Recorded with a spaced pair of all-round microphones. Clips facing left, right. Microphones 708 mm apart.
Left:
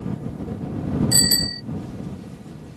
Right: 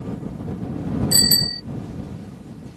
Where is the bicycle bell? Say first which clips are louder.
Even; 70° right (ahead or behind).